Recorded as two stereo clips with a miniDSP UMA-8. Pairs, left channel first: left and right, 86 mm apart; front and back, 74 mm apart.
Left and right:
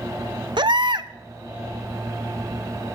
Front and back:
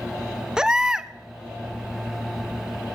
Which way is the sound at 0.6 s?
100° right.